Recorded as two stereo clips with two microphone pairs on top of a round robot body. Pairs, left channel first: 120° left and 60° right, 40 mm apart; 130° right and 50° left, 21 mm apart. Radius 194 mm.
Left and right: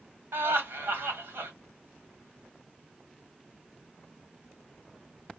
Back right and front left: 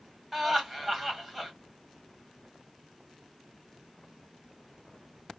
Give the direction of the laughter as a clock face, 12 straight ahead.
1 o'clock.